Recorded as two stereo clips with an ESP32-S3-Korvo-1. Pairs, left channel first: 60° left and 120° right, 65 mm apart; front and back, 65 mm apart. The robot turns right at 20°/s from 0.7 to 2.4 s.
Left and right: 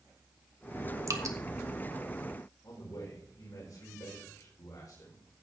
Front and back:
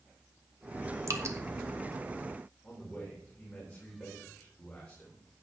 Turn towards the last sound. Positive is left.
turn(degrees=70)